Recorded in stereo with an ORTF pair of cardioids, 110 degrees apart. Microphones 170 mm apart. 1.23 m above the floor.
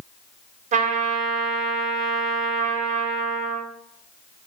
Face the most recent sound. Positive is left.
turn(degrees=-50)